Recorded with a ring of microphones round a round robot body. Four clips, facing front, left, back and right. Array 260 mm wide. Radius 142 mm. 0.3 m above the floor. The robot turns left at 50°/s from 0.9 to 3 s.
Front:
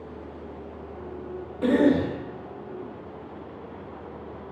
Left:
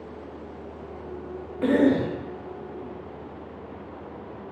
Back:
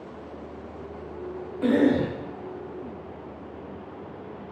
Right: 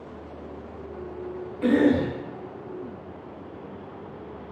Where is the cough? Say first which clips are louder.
Even, front 1 dB; 75° left, 1.1 m; by 2.1 s 45° left, 1.1 m.